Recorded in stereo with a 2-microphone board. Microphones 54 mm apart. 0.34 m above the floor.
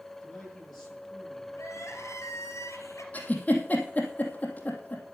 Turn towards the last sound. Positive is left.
turn(degrees=30)  # may be behind; listen again after turning